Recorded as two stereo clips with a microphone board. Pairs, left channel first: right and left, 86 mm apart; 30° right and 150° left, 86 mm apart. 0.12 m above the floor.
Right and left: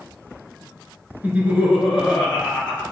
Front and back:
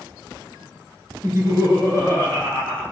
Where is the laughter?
145° left, 1.3 m; by 2.8 s 160° right, 1.6 m.